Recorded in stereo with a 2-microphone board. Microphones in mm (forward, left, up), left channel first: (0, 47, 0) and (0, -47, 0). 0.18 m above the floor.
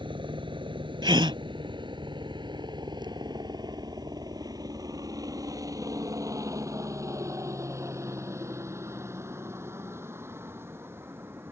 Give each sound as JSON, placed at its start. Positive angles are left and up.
{"t": 0.0, "sound": "a helicopter", "side_deg": -60}
{"t": 1.0, "sound": "a gasp", "side_deg": -60}